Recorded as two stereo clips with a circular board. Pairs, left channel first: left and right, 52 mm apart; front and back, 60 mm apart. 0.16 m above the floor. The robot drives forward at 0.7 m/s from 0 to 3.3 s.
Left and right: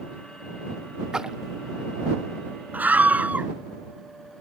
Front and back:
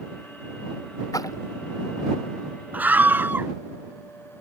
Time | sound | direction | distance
1.1 | a splash | 15° right | ?
2.7 | a scream | 130° right | ?